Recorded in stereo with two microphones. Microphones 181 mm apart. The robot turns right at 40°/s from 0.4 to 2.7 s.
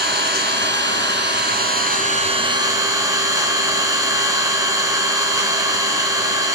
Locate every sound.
0.0 s an engine running: 110° right, 3.5 m; by 6.5 s 20° right, 3.5 m